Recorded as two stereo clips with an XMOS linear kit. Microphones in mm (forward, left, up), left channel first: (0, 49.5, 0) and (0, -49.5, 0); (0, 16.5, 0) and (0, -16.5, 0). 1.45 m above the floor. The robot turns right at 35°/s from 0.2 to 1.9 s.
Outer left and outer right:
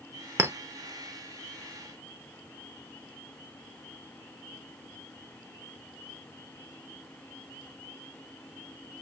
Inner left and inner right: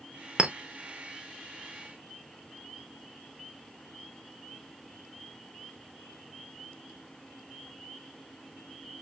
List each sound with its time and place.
0.4 s a clink: 30° right (ahead or behind), 0.5 m; by 0.6 s 25° right (ahead or behind), 0.5 m